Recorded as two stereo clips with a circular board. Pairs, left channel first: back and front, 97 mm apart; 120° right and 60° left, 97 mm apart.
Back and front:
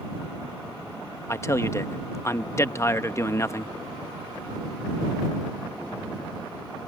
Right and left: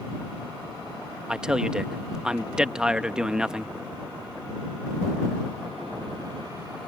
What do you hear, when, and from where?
1.3 s a man speaking: 140° left